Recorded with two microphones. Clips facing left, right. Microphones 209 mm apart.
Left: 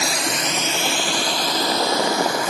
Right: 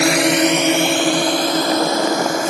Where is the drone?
70° right (ahead or behind); by 2.5 s 45° right (ahead or behind).